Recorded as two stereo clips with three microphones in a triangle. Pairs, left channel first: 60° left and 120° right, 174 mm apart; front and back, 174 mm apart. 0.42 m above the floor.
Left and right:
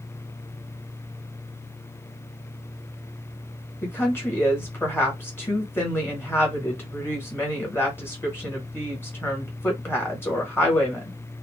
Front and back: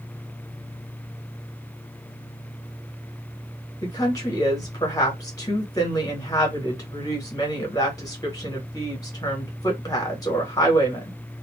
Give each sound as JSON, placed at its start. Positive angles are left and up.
{"t": 3.8, "sound": "a woman speaking", "azimuth_deg": 10, "distance_m": 1.2}